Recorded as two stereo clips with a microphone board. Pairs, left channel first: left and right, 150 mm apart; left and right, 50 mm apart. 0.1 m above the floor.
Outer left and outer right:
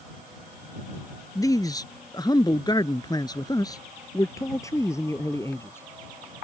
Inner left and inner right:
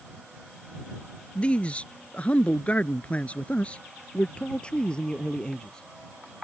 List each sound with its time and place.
1.4 s a man speaking: 25° left (ahead or behind); by 5.9 s 15° left (ahead or behind)